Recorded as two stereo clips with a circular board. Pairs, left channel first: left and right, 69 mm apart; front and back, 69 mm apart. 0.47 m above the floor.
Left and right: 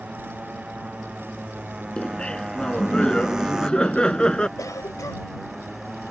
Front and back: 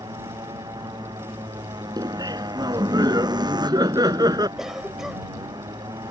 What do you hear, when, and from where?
0.0 s a motorcycle: 165° right; by 6.1 s straight behind
2.0 s laughter: 165° left
4.6 s a cough: 95° left